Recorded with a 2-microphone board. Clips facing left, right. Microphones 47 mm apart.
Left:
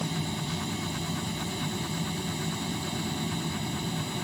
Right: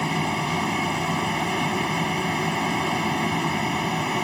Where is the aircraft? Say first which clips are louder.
Right 9 dB; 60° right (ahead or behind).